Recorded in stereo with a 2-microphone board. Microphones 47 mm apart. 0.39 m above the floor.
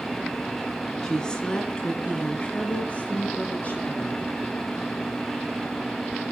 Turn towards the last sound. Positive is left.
turn(degrees=40)  # may be behind; listen again after turning